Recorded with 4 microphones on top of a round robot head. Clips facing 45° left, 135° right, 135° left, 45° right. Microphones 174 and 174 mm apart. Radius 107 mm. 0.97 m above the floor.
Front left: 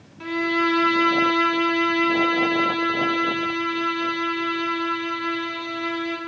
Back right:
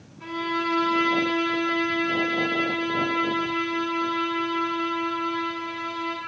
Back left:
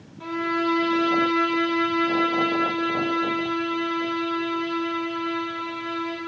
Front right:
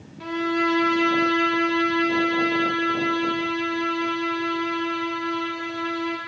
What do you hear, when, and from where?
0.2 s a violin: 25° left, 1.0 m